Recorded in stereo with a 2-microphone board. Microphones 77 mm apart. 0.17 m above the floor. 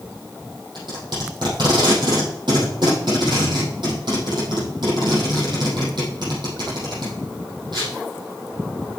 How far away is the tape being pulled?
About 4.5 m.